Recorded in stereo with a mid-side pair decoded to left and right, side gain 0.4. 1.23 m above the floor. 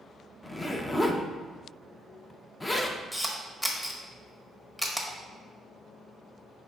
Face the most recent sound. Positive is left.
turn(degrees=5)